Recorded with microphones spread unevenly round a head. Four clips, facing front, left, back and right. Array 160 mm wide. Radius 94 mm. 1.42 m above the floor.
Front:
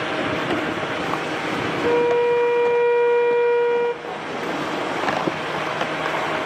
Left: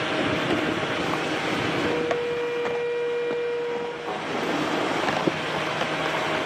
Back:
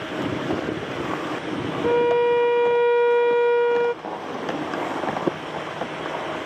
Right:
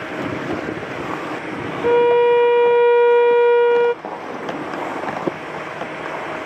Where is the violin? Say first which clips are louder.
Right 17 dB, even; 70° right, 0.8 m.